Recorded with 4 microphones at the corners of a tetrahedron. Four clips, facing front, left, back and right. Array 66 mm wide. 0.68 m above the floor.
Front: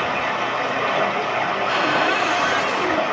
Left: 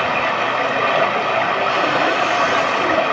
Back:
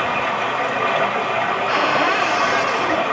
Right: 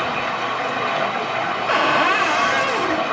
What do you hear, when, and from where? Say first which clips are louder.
0.0 s running water: left 4 dB, back 2 dB; 105° left, 0.9 m
1.7 s a cupboard door: even, back 2 dB; 105° right, 0.8 m